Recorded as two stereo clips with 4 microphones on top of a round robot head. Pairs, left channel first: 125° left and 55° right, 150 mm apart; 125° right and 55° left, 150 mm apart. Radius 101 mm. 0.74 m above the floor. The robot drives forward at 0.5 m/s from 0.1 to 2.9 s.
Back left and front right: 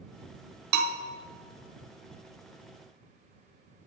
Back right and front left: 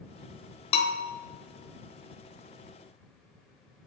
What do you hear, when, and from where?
0.7 s a bell: 70° right, 0.7 m; by 1.0 s 85° right, 0.7 m